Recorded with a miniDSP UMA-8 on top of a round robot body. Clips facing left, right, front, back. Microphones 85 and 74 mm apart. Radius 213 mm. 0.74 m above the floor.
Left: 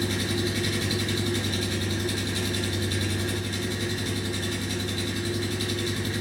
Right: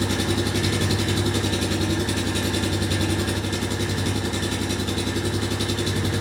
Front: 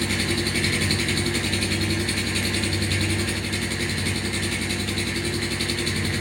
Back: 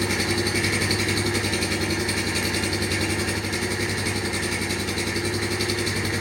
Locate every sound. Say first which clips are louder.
0.0 s an engine running: right 4 dB, back 1 dB; 105° right, 1.2 m